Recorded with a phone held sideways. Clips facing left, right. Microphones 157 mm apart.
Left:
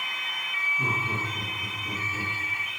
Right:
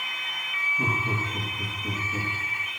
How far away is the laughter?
About 2.5 m.